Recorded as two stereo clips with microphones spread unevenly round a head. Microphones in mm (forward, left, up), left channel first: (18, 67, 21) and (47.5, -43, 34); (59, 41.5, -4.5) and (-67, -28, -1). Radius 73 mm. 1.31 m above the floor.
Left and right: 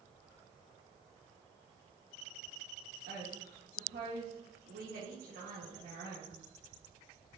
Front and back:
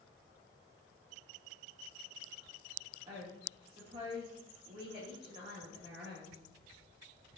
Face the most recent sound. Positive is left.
turn(degrees=-95)